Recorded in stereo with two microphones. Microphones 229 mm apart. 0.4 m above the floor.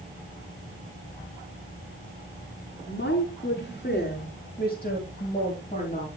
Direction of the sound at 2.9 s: 55° left (ahead or behind).